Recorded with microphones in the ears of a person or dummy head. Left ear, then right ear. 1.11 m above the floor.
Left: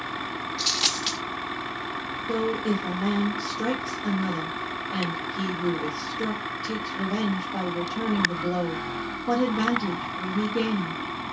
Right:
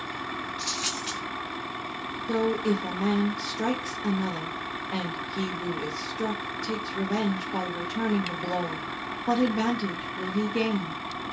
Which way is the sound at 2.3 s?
65° right (ahead or behind).